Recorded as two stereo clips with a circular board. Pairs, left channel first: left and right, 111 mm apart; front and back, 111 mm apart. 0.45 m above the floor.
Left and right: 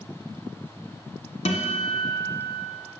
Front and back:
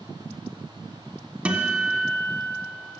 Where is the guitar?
100° left, 1.1 m.